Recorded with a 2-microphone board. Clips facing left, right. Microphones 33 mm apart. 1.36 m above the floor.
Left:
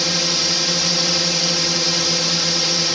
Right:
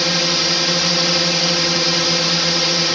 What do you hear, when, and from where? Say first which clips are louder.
0.0 s a drone: right 3 dB; 15° right (ahead or behind)